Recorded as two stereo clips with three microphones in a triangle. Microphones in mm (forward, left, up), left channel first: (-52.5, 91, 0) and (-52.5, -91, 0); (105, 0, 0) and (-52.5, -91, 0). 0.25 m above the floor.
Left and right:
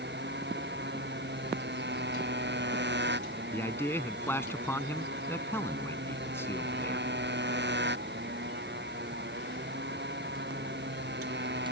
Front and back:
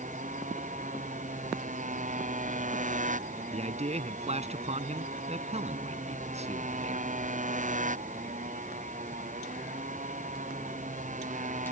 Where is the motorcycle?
105° right.